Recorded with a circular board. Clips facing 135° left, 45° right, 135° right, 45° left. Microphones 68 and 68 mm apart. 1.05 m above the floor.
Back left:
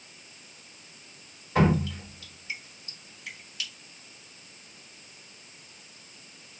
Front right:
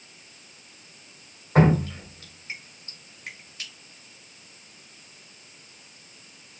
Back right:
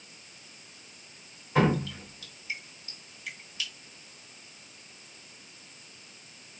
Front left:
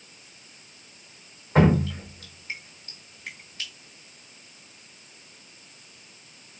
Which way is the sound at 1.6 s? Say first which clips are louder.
Front right 4 dB, front left 5 dB; 5° right.